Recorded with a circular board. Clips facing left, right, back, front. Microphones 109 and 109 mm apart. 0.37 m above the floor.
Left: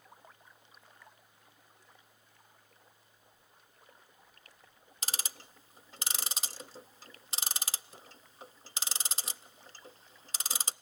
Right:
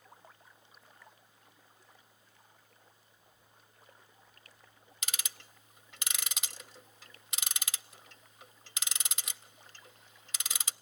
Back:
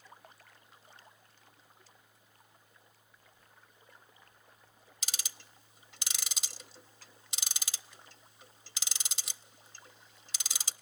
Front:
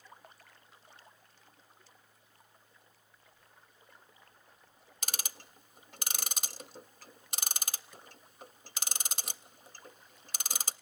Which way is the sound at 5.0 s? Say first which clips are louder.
Left 3 dB, front 5 dB; 35° left.